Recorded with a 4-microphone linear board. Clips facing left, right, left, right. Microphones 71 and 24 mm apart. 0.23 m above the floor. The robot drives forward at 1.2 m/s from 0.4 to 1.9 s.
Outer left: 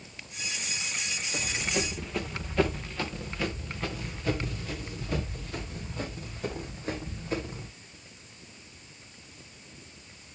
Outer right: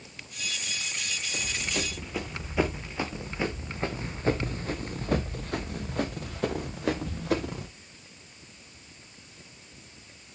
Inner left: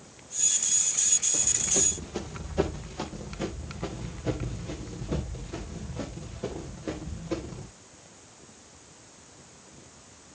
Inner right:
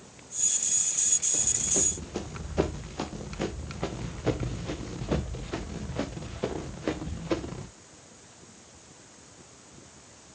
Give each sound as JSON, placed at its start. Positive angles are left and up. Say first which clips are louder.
{"t": 1.3, "sound": "running footsteps", "louder": "outer left 2 dB, inner left 2 dB", "side_deg": 5, "distance_m": 1.8}